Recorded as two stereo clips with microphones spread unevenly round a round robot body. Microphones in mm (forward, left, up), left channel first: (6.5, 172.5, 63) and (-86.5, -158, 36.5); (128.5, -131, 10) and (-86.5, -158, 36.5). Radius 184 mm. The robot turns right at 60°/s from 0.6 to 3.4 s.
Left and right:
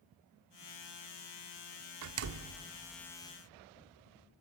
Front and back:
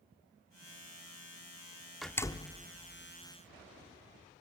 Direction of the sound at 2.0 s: 80° right.